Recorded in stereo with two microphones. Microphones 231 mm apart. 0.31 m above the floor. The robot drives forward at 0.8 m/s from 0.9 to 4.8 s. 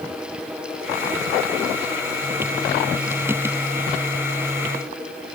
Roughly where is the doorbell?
I don't hear a doorbell.